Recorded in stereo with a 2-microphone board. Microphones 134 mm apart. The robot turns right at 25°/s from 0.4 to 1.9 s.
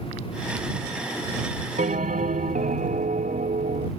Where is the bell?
70° right (ahead or behind); by 3.9 s 75° right (ahead or behind).